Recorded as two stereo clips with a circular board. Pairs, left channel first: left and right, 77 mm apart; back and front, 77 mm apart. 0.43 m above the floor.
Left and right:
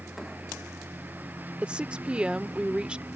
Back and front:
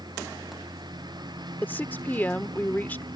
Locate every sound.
0.0 s a lawn mower: 25° right
1.6 s a woman speaking: 150° right